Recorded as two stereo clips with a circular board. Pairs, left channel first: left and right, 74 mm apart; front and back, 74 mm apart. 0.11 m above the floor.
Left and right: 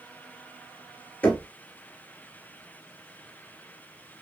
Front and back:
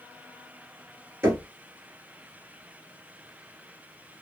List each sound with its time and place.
1.2 s knocking: 145° left, 1.2 m